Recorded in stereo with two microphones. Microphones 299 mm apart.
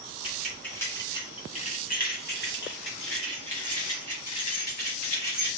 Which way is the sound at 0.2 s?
5° right (ahead or behind).